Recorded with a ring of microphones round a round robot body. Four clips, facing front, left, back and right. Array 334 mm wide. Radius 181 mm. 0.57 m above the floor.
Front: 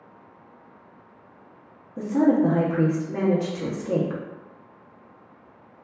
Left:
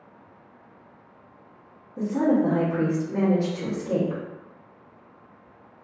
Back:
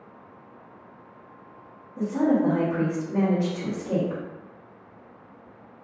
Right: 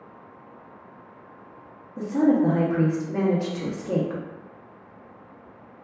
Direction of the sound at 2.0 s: 40° right.